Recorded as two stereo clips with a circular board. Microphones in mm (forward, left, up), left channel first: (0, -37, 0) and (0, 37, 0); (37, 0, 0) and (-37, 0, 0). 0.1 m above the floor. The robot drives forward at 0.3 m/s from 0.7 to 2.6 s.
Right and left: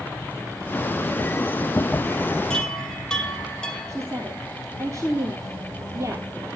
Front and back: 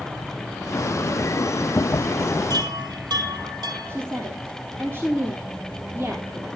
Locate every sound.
2.5 s a chime: 165° right, 1.9 m
3.9 s a woman speaking: 130° left, 2.5 m